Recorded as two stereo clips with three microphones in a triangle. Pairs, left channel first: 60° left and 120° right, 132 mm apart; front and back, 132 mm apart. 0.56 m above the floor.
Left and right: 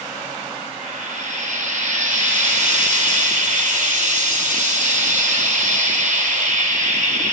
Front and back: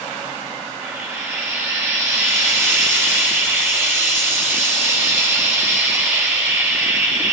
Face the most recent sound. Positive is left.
turn(degrees=-110)